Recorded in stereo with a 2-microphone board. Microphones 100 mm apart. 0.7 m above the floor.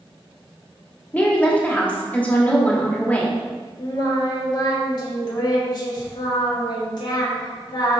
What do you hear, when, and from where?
1.1 s a woman speaking: 15° left (ahead or behind), 1.4 m
3.8 s singing: 45° left (ahead or behind), 1.4 m